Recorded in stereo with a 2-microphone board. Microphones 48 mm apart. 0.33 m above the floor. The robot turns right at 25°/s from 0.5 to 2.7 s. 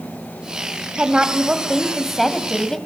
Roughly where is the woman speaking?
Ahead right.